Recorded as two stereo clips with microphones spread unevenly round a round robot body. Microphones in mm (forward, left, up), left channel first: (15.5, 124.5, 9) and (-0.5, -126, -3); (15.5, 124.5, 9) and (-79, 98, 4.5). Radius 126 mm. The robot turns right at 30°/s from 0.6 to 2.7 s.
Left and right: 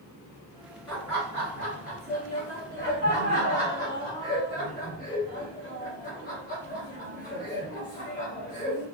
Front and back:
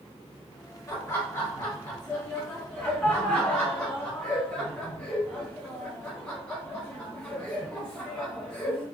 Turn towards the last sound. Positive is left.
turn(degrees=85)